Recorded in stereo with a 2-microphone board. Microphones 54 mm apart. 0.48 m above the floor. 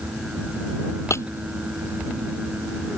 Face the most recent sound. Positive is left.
turn(degrees=60)  # may be behind; listen again after turning